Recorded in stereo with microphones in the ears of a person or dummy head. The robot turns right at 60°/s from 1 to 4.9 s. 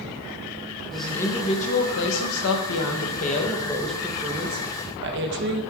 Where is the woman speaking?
Straight ahead, 0.8 m; by 5.6 s 125° right, 0.8 m.